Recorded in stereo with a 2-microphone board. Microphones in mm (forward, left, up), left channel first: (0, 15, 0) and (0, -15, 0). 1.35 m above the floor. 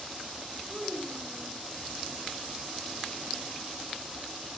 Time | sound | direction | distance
0.7 | a child speaking | 10° right (ahead or behind) | 7.5 m